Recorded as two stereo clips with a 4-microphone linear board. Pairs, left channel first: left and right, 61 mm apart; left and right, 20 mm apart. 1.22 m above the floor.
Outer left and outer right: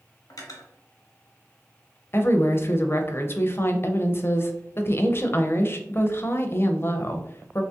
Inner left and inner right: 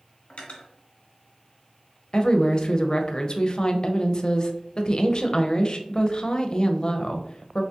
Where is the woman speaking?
35° left (ahead or behind), 0.5 m.